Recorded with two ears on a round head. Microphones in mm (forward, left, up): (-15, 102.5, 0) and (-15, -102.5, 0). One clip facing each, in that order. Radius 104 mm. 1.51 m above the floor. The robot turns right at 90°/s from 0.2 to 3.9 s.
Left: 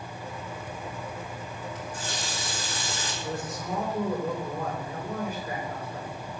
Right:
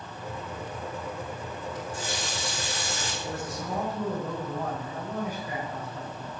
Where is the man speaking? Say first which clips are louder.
Left 1 dB; 65° left, 6 m; by 6.3 s 125° left, 6 m.